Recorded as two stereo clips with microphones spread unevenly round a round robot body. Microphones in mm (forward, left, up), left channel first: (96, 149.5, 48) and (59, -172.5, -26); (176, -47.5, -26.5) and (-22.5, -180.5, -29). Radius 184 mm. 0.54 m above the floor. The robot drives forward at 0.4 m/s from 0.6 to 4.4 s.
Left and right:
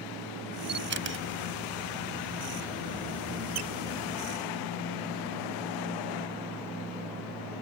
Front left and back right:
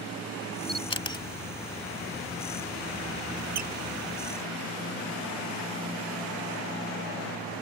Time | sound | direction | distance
0.7 | a camera shutter | 35° right | ?
3.5 | a squeak | 150° right | ?